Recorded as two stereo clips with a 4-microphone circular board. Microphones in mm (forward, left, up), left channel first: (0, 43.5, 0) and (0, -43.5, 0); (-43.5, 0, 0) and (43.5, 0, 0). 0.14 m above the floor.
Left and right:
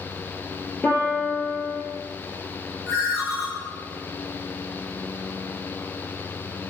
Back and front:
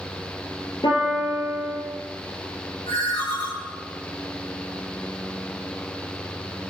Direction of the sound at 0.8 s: 160° left.